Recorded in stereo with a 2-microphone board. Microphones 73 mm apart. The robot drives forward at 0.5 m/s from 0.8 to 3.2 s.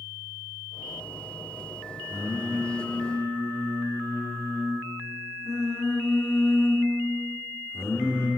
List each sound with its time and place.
2.1 s singing: 40° left (ahead or behind), 2 m; by 8.3 s 50° left (ahead or behind), 1.8 m